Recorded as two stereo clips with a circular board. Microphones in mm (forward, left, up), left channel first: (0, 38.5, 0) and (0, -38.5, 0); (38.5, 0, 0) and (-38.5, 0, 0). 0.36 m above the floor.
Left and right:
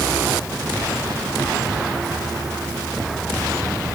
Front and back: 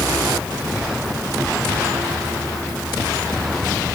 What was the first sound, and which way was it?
Only background noise.